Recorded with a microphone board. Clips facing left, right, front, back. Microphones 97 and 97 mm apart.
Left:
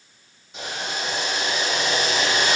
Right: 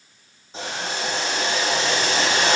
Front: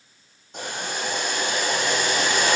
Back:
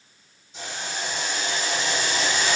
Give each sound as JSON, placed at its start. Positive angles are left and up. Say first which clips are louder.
{"t": 0.5, "sound": "boiling", "louder": "right 2 dB, front 3 dB", "azimuth_deg": -30, "distance_m": 8.0}